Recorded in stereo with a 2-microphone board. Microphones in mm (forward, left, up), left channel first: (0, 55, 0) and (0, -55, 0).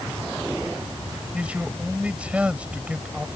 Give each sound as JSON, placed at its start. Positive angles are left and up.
{"t": 1.3, "sound": "a man speaking", "side_deg": -10}